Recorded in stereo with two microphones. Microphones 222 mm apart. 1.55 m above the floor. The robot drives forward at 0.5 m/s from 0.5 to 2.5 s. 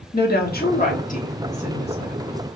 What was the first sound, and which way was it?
A woman speaking, 45° left (ahead or behind).